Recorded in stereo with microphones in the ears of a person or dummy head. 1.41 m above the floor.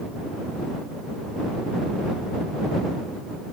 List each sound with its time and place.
Only background noise.